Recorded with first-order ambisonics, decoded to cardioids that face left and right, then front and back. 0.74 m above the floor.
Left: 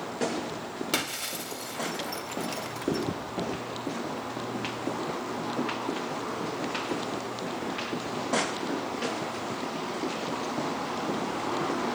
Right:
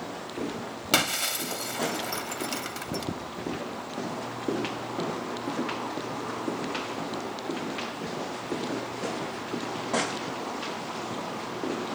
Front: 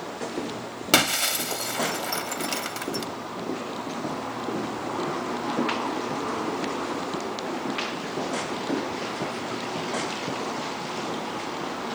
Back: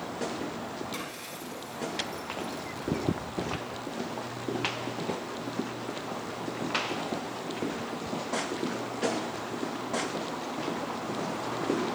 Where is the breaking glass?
15° right, 1.0 m.